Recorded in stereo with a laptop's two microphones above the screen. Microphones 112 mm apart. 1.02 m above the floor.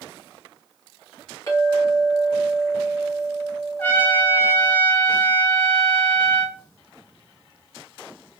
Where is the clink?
35° left (ahead or behind), 1.2 m.